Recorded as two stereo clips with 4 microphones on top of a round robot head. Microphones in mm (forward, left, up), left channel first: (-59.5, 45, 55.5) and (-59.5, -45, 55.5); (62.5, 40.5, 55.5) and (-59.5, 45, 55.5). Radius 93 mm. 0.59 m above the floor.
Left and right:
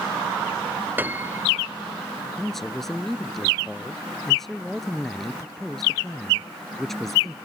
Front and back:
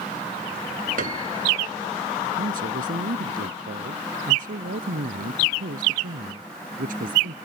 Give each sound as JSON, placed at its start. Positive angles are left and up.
{"t": 1.0, "sound": "a piano", "azimuth_deg": -155}
{"t": 2.4, "sound": "a man speaking", "azimuth_deg": 180}